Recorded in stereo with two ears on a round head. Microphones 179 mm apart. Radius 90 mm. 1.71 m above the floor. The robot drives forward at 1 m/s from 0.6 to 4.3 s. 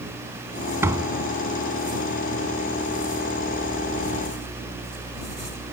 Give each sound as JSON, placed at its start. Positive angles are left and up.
{"t": 0.8, "sound": "a door slam", "side_deg": -15}